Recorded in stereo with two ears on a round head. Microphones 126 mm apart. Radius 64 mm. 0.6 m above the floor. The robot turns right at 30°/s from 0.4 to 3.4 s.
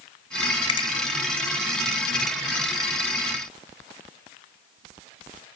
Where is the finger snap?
35° left (ahead or behind), 0.6 m.